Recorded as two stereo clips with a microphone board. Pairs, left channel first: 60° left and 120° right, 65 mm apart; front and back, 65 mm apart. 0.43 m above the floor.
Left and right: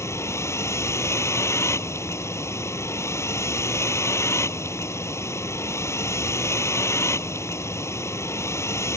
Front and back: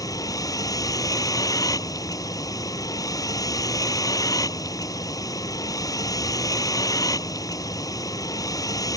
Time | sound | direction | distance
0.0 | a vehicle | 20° left | ?